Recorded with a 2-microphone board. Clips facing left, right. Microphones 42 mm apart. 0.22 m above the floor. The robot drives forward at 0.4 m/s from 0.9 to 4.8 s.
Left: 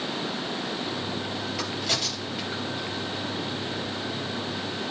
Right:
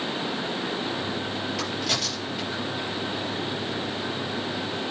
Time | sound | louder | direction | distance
1.6 | a crack | even | centre (ahead or behind) | 4.5 m